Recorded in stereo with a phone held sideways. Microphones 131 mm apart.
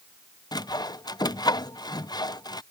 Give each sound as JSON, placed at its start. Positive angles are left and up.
{"t": 0.5, "sound": "sawing", "side_deg": 30}